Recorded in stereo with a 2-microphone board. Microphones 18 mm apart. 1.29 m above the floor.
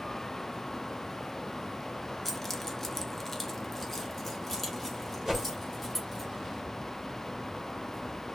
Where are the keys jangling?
15° left (ahead or behind), 0.6 m; by 6.2 s 5° left (ahead or behind), 1.8 m.